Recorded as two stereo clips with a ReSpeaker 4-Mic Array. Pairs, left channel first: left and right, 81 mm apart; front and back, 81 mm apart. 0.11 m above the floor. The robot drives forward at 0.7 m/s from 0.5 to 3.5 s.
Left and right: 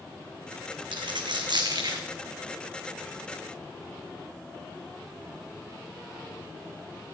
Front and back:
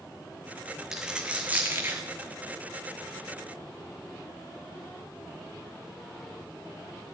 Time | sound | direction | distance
0.9 | a dropped coin | 95° right | 1.4 m